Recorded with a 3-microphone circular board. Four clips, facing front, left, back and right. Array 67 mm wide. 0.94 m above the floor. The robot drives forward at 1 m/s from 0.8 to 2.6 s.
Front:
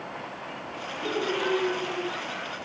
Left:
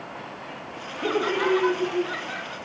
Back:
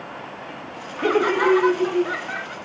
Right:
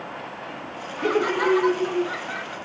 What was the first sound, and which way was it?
Laughter, 165° right.